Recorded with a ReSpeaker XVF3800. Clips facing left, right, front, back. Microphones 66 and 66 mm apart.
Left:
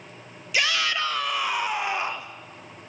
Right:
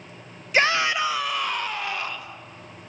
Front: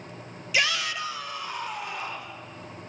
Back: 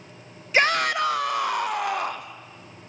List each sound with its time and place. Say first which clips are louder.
0.5 s a shout: right 4 dB, back 6 dB; 130° right, 0.6 m; by 2.4 s 155° left, 1.2 m